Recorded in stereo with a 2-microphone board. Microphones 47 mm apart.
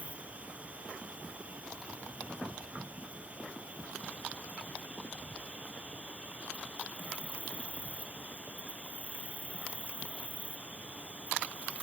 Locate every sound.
0.0 s an insect: 30° right (ahead or behind)